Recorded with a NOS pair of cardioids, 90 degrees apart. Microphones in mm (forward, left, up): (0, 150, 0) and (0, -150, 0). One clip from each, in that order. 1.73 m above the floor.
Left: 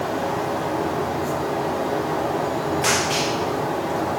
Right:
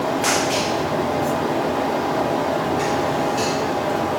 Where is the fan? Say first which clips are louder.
Right 4 dB; 50° right, 4 m.